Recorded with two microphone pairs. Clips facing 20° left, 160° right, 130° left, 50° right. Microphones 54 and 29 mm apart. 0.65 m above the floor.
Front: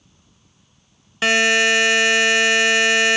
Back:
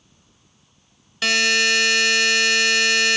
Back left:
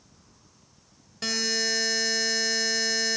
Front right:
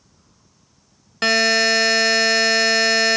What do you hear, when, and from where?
1.2 s a buzzer: 40° right, 0.8 m